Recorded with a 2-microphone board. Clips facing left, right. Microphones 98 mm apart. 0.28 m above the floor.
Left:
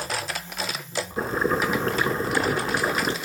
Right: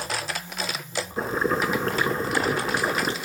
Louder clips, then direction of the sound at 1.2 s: Even; centre (ahead or behind).